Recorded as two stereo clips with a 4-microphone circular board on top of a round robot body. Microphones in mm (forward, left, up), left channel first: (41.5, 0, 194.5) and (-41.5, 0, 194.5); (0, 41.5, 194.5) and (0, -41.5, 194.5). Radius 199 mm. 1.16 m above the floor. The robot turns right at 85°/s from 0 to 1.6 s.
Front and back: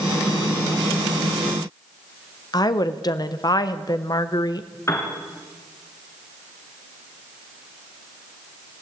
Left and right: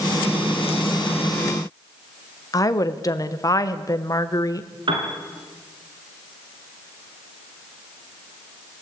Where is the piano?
60° right, 2.5 m.